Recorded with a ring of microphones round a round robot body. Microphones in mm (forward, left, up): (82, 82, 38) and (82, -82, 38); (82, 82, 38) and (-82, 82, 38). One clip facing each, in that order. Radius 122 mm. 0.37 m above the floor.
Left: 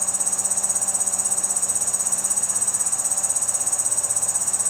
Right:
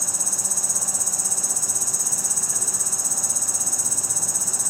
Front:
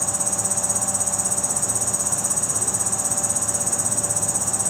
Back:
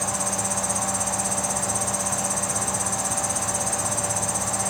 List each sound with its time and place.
0.0 s an insect: 50° right